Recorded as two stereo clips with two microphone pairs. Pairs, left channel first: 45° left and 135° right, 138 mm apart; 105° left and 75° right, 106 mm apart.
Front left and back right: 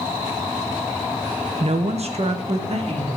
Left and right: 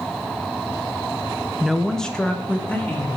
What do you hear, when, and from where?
1.6 s a woman speaking: 160° right, 0.7 m; by 3.1 s straight behind, 2.5 m